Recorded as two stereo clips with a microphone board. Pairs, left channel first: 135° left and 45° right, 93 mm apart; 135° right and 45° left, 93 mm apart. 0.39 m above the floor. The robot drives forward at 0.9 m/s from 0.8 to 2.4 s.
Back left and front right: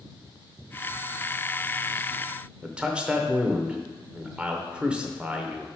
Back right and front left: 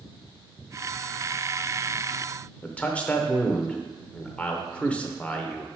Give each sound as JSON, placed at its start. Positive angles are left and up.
{"t": 2.6, "sound": "a man speaking", "azimuth_deg": -95, "distance_m": 0.8}